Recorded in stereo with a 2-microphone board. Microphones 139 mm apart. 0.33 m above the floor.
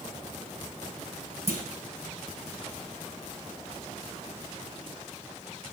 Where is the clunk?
55° left (ahead or behind), 1.9 m.